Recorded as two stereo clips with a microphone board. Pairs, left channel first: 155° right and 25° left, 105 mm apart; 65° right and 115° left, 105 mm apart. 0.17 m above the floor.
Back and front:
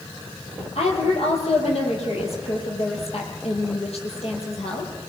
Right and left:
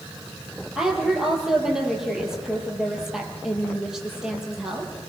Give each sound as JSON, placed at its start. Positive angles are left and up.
{"t": 0.8, "sound": "a woman speaking", "azimuth_deg": -165, "distance_m": 5.5}